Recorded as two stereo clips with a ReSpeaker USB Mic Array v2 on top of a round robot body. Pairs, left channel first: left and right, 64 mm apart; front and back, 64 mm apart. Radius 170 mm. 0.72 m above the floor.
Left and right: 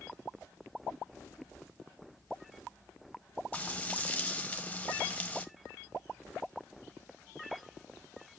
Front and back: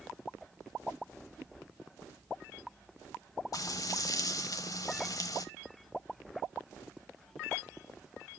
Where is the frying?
20° left, 1.2 m.